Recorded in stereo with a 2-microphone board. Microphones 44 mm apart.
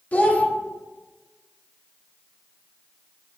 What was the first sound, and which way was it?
A child speaking, 35° left (ahead or behind).